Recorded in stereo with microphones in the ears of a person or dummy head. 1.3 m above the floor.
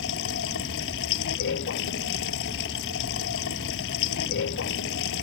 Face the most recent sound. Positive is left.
turn(degrees=70)  # may be behind; listen again after turning